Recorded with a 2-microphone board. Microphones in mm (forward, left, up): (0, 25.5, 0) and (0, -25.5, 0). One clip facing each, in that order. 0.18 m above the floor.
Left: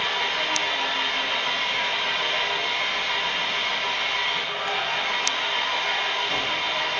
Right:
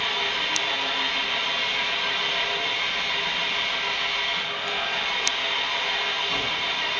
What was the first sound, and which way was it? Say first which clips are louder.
An engine running: left 1 dB; 50° left (ahead or behind).